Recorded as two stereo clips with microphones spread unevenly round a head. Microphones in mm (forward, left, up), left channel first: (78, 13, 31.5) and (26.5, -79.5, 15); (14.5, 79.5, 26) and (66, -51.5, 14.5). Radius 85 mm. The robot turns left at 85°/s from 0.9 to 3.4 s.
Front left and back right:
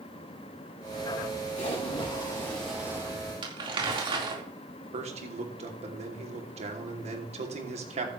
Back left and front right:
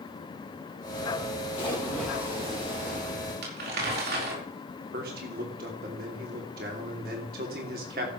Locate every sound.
1.6 s a splash: 65° left, 9 m; by 3.1 s 70° right, 9 m
3.4 s crumpling: 80° right, 4.5 m
4.9 s a man speaking: 105° right, 3 m